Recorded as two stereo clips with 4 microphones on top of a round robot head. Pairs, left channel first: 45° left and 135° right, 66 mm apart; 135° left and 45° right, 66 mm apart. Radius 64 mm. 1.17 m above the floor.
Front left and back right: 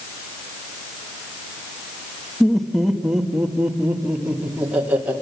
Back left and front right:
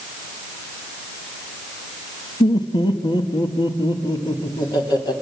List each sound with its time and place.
2.4 s laughter: 130° left, 1.5 m; by 5.1 s 155° left, 3 m